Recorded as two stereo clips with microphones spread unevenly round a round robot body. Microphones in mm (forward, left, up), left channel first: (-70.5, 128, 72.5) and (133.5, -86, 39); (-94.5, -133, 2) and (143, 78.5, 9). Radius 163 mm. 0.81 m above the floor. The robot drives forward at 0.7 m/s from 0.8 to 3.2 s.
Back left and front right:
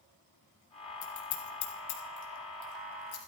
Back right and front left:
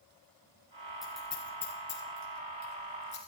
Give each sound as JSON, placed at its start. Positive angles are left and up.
{"t": 1.0, "sound": "scissors", "azimuth_deg": 130, "distance_m": 2.5}